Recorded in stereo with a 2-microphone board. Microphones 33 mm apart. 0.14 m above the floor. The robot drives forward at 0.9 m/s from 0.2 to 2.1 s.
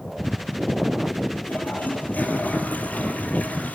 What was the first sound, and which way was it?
A toilet flushing, 60° left (ahead or behind).